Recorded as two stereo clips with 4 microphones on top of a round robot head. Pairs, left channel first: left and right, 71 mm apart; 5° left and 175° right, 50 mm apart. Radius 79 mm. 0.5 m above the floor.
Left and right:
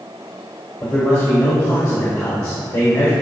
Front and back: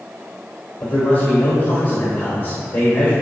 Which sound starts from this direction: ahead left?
A man speaking, at 0.8 s.